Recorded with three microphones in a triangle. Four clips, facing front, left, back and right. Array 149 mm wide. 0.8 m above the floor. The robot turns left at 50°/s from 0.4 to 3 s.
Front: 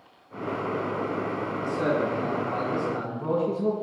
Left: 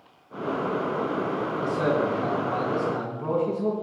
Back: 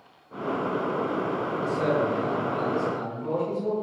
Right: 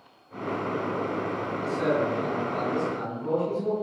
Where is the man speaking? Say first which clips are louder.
Left 1 dB, back 1 dB; 115° left, 7 m; by 3.7 s 45° left, 7 m.